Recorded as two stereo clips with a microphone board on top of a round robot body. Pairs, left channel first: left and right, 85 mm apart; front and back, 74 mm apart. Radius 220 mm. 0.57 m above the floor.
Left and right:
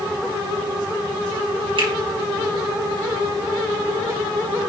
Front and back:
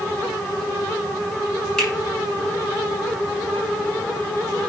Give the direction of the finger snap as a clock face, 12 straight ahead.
3 o'clock.